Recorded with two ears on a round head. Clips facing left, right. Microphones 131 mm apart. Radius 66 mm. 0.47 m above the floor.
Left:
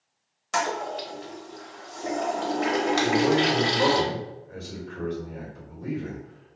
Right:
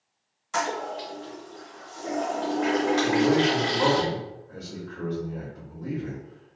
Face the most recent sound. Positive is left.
turn(degrees=20)  # may be behind; listen again after turning